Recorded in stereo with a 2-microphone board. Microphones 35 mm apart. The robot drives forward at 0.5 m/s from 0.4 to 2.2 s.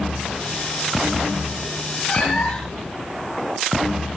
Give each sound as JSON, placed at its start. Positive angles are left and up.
{"t": 2.1, "sound": "a cat meowing", "side_deg": 20, "distance_m": 3.5}